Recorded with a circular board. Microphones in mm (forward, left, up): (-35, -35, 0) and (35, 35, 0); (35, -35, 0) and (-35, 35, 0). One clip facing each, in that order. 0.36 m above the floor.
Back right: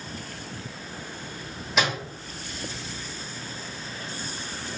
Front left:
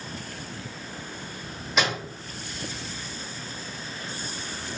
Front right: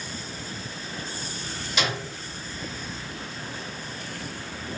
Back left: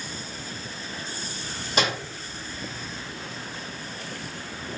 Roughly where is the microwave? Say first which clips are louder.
Even, back left 3 dB; behind left.